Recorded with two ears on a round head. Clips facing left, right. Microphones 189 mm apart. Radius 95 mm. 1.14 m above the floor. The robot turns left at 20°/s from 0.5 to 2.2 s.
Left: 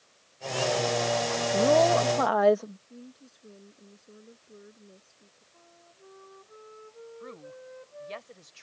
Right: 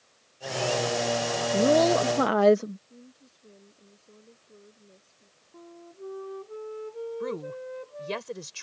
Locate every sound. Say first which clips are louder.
1.5 s a woman speaking: right 1 dB; 20° right (ahead or behind); by 2.8 s 35° right (ahead or behind)
2.9 s a woman speaking: left 4 dB; 15° left (ahead or behind)
5.5 s a flute: right 14 dB; 70° right (ahead or behind)
7.2 s a woman speaking: right 10 dB; 85° right